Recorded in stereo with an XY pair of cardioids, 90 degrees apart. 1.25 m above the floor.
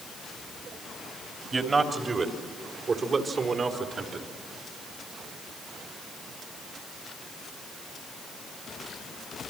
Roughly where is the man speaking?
Ahead right.